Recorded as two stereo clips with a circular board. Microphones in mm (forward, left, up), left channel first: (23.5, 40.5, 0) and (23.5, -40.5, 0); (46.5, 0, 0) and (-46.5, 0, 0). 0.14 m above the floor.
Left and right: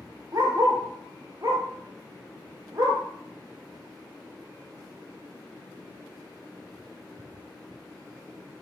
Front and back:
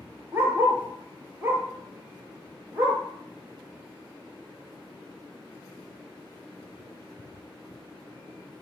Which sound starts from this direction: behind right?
A dog barking, at 0.3 s.